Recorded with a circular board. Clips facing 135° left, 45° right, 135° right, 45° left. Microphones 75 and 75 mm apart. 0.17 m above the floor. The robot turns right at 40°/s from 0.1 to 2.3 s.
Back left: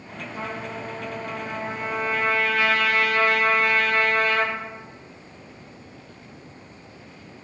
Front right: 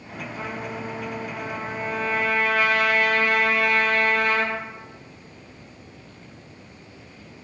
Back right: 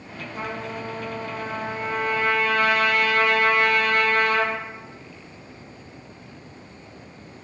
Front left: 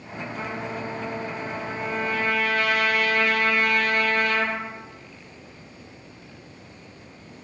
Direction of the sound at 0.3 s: 150° left.